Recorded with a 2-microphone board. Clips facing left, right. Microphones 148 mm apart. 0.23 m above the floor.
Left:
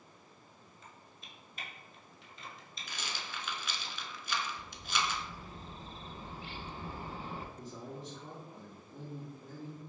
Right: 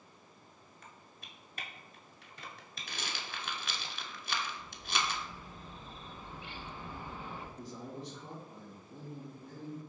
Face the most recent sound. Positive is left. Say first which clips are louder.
# right 1 dB
turn(degrees=0)  # may be behind; listen again after turning